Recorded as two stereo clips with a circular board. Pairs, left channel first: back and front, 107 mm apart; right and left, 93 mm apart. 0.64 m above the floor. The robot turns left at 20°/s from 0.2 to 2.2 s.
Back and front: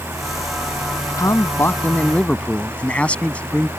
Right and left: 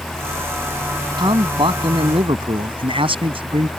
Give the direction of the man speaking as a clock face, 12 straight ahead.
8 o'clock.